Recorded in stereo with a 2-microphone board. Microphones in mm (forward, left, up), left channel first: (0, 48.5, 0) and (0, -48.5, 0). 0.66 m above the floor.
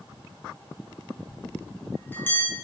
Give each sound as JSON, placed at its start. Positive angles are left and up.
{"t": 1.3, "sound": "a bell", "side_deg": 20, "distance_m": 9.0}